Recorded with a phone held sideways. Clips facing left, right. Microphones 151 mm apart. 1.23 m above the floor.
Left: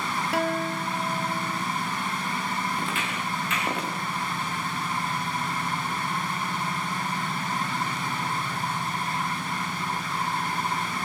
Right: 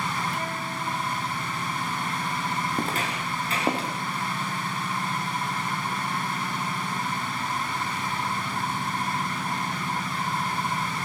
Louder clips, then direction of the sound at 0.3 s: Left 6 dB; 75° left (ahead or behind).